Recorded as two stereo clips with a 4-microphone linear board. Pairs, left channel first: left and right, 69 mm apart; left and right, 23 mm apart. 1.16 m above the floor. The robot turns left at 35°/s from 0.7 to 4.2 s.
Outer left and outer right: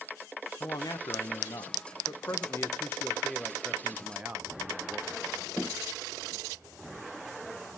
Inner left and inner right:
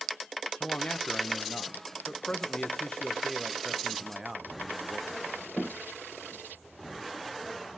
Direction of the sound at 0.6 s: 110° left.